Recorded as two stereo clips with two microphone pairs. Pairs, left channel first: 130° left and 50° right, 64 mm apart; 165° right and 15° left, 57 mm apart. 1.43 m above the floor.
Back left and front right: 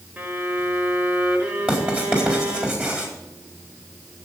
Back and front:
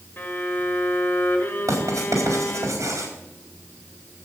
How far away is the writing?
About 4.5 m.